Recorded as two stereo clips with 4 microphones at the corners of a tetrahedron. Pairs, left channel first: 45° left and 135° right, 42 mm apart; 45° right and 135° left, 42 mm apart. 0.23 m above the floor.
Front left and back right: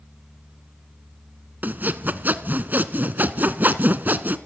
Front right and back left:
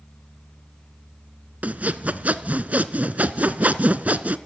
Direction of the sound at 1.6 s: 175° right.